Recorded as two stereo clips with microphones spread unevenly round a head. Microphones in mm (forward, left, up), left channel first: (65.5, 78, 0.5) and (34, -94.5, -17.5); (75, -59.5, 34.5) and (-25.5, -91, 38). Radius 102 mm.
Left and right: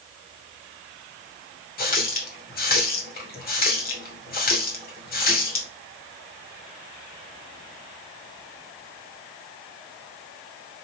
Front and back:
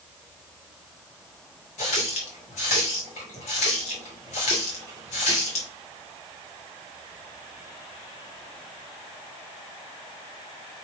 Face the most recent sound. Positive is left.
turn(degrees=50)